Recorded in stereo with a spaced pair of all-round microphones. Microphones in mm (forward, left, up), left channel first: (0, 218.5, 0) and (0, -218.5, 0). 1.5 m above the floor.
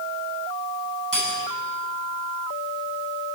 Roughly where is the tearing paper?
No tearing paper in this recording.